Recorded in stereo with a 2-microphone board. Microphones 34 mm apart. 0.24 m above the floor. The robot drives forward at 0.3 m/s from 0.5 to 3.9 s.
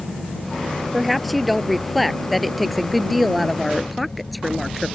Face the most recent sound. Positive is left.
turn(degrees=0)  # may be behind; listen again after turning